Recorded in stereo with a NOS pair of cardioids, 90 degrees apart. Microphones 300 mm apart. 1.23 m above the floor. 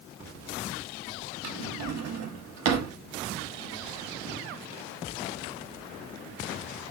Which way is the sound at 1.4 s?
65° right.